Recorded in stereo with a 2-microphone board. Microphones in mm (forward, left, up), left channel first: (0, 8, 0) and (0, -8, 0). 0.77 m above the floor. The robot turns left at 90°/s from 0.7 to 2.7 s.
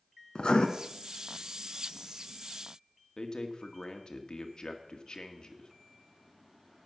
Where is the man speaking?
60° left (ahead or behind), 1.6 m.